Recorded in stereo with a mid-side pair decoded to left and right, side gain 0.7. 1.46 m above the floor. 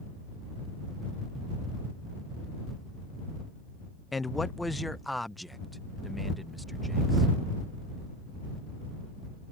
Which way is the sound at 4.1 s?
20° left.